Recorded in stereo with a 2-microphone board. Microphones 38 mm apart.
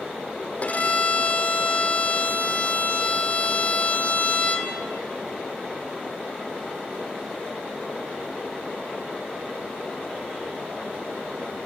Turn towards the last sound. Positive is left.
turn(degrees=40)  # may be behind; listen again after turning